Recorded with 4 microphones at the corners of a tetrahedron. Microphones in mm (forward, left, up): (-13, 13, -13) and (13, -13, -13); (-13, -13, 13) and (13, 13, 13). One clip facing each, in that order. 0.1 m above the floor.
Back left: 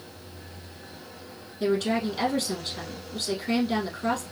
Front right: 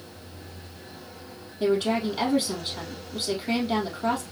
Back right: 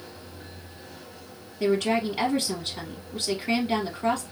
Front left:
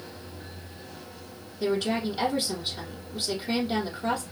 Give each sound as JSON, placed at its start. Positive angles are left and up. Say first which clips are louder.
{"t": 1.6, "sound": "a woman speaking", "louder": "front right 1 dB, back right 3 dB", "azimuth_deg": -115, "distance_m": 3.0}